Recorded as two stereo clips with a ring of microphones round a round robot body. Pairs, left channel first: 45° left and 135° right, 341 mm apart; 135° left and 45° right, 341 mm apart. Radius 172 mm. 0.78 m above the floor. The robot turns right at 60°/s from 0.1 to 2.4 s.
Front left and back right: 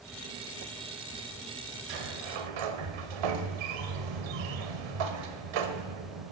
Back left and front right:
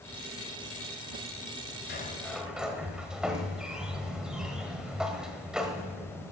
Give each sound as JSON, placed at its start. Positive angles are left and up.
{"t": 1.9, "sound": "a sliding door", "azimuth_deg": -165, "distance_m": 1.2}